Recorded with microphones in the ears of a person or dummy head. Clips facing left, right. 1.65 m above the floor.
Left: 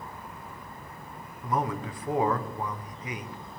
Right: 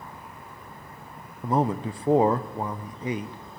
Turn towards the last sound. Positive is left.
turn(degrees=-25)  # may be behind; listen again after turning